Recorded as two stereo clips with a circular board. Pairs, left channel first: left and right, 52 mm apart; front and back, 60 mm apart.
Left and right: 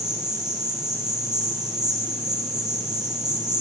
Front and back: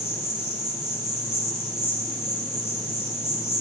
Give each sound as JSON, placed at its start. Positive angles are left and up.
{"t": 0.0, "sound": "an insect", "azimuth_deg": -160, "distance_m": 4.5}